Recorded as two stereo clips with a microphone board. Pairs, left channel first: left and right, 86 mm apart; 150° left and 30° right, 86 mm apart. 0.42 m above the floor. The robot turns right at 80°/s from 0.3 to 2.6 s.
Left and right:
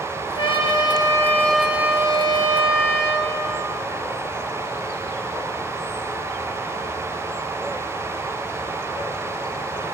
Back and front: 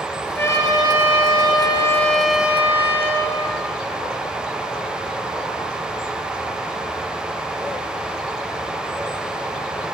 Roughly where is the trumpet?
Left.